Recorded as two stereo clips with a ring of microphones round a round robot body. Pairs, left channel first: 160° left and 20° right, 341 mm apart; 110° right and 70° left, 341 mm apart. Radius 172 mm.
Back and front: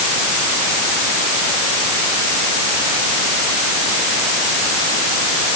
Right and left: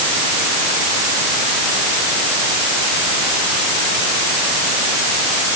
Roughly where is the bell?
I don't hear a bell.